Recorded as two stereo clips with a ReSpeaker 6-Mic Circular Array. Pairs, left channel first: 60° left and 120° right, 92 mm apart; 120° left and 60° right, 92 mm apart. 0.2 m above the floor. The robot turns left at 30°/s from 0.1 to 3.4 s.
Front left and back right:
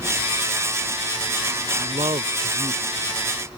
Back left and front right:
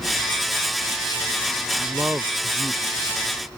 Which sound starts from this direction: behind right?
A man speaking, at 1.8 s.